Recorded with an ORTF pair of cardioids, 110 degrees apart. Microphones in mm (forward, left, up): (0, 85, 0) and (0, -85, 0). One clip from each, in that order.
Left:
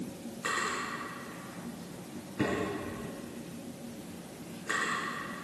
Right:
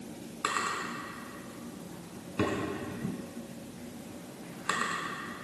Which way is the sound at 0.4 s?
55° right.